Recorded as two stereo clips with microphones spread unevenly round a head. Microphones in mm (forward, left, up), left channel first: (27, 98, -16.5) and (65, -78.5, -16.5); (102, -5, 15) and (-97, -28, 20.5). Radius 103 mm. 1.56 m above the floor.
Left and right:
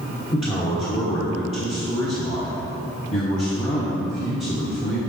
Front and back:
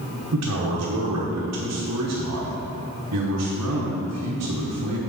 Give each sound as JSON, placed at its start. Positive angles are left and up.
{"t": 0.3, "sound": "a man speaking", "azimuth_deg": 170, "distance_m": 1.1}